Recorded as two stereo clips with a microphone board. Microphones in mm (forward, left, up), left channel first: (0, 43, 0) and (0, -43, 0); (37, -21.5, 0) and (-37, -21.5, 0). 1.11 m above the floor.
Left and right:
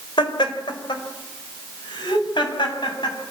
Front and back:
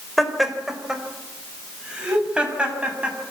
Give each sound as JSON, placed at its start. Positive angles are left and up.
{"t": 0.2, "sound": "laughter", "azimuth_deg": 90, "distance_m": 3.5}